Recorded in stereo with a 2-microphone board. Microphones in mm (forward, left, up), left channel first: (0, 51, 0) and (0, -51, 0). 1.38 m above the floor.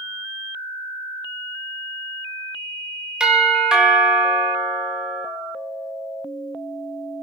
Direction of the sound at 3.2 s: 10° right (ahead or behind).